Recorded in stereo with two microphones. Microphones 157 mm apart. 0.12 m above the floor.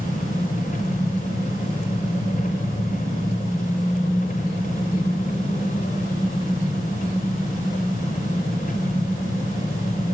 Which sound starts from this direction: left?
An engine running, at 0.0 s.